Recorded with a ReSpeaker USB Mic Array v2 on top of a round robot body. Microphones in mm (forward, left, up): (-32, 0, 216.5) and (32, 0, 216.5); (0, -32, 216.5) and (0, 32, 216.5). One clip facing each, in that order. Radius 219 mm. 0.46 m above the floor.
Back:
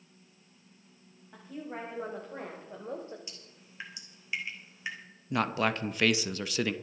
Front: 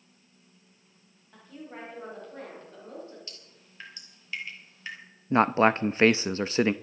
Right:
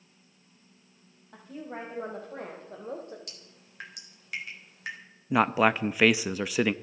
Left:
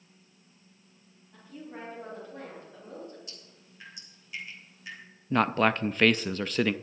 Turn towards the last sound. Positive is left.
turn(degrees=-15)